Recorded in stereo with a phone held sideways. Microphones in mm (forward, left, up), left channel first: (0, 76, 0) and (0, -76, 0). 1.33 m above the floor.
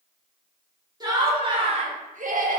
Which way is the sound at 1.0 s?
25° right (ahead or behind).